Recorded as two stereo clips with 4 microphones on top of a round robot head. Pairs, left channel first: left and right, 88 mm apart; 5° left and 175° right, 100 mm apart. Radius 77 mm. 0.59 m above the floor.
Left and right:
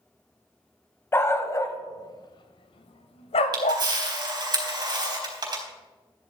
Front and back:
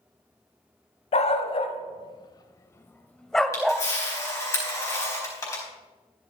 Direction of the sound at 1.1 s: 25° left.